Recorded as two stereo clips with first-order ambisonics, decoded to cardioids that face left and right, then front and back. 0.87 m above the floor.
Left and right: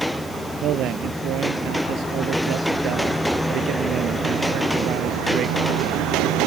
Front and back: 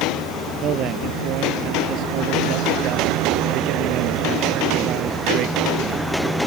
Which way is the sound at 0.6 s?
135° right.